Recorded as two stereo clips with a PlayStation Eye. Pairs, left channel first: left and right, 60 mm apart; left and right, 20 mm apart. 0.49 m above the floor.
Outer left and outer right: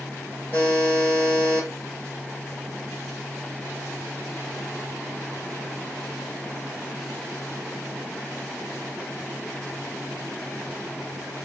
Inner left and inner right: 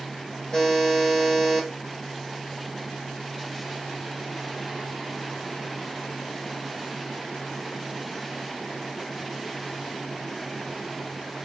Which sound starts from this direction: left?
A buzzer, at 0.5 s.